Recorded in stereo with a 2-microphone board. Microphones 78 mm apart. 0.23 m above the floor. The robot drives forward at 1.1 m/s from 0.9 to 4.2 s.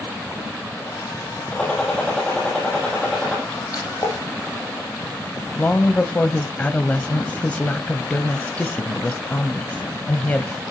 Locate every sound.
1.5 s a gunshot: 15° left (ahead or behind), 9 m; by 3.4 s 10° left (ahead or behind), 11 m
3.7 s a splash: 50° left (ahead or behind), 9.5 m; by 4.2 s 45° left (ahead or behind), 10 m
5.6 s a woman speaking: 20° left (ahead or behind), 0.9 m